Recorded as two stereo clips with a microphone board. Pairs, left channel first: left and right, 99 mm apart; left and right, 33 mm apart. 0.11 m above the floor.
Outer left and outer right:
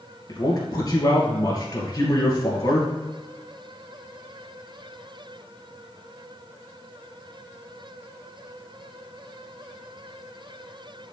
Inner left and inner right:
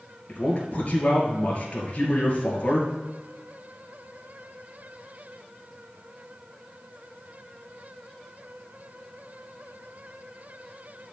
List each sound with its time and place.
0.3 s a man speaking: 40° left (ahead or behind), 2 m